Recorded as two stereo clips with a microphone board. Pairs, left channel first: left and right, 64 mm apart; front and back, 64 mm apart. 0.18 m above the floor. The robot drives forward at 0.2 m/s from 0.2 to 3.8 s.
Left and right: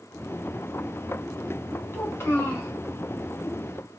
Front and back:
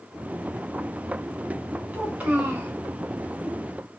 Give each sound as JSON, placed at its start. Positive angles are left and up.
{"t": 1.9, "sound": "a child speaking", "azimuth_deg": 125, "distance_m": 1.2}